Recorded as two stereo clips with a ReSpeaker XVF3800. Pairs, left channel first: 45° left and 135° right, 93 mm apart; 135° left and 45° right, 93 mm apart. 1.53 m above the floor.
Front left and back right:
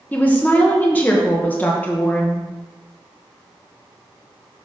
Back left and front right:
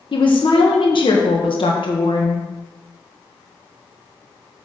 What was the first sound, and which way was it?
A woman speaking, 115° left.